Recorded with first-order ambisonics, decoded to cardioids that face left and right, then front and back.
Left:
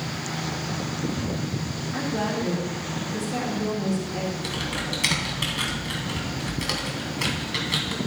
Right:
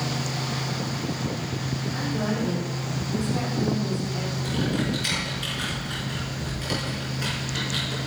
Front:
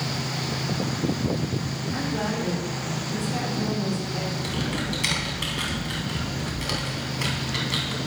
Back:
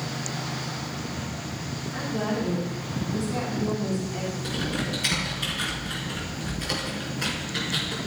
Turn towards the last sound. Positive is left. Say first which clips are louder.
# right 1 dB, front 1 dB
turn(degrees=60)